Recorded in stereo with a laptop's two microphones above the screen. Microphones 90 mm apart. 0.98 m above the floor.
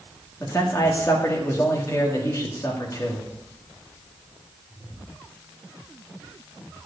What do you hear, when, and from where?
0.4 s a man speaking: 30° left (ahead or behind), 1.9 m